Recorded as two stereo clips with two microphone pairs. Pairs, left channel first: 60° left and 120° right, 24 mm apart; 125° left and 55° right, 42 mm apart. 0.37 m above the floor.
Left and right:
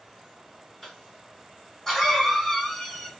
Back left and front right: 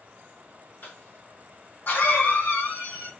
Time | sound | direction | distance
0.8 | a cough | 145° left | 2 m